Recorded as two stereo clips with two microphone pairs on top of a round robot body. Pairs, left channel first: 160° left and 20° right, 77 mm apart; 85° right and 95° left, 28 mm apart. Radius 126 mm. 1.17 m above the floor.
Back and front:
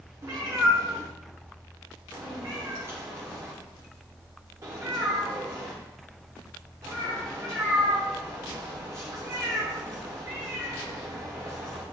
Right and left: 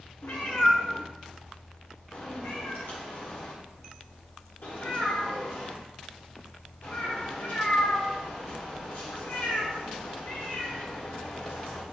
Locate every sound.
0.2 s a cat meowing: 80° right, 1.1 m